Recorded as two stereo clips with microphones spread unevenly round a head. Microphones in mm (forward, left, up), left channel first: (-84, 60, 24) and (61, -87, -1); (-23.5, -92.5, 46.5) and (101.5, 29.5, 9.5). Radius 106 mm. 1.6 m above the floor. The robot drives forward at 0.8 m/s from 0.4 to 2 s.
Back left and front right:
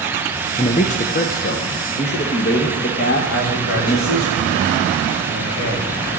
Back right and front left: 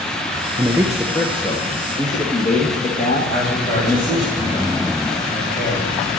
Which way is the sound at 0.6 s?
110° left.